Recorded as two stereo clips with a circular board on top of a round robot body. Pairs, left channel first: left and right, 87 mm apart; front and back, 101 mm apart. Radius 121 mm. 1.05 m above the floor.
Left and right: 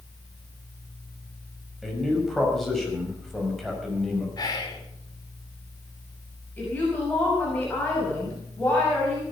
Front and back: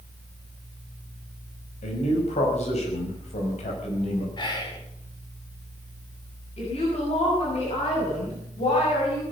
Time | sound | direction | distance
1.8 | a man speaking | straight ahead | 6 m
4.4 | whispering | 45° left | 4.5 m
6.6 | a woman speaking | 15° left | 6.5 m